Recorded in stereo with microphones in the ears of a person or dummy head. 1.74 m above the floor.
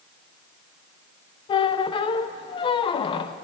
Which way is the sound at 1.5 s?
25° left (ahead or behind).